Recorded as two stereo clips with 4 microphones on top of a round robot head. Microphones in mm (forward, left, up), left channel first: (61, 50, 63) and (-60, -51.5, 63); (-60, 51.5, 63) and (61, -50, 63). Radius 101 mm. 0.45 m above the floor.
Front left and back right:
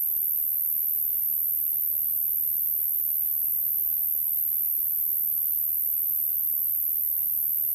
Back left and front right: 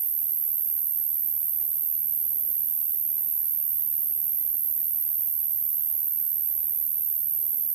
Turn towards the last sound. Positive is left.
turn(degrees=-60)